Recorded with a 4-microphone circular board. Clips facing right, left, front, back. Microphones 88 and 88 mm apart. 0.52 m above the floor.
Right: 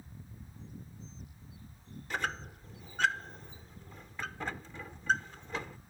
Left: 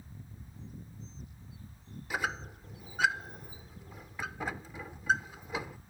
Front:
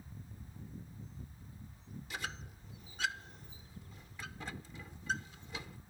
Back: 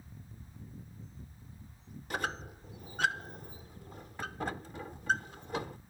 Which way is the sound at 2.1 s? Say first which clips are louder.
Left 1 dB, back 8 dB; 170° left.